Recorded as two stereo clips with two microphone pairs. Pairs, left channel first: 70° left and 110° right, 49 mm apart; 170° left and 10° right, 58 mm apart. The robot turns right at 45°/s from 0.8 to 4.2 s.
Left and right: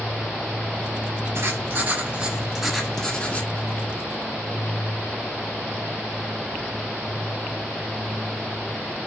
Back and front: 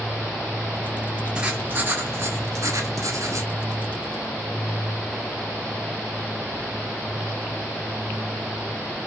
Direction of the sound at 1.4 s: 80° right.